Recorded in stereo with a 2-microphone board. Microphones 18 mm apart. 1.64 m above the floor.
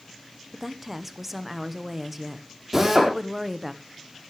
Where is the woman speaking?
15° right (ahead or behind), 1.2 m.